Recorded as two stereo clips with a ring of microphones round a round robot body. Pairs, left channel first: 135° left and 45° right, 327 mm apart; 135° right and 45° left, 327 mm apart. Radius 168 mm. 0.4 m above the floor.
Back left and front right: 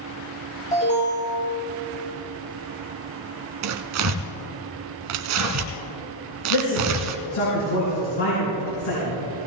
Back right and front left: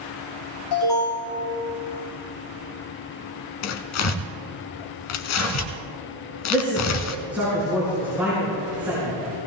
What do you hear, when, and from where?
0.7 s an alarm: 160° right, 5.5 m
3.6 s tearing paper: 90° right, 1.1 m
6.5 s a man speaking: 130° left, 5 m